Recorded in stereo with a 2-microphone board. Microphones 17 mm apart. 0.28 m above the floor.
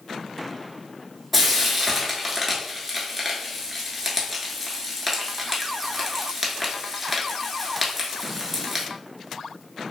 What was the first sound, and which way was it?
Frying, 5° right (ahead or behind).